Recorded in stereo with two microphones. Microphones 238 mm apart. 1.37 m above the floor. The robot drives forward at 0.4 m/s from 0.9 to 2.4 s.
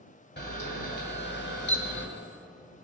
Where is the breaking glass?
No breaking glass in this recording.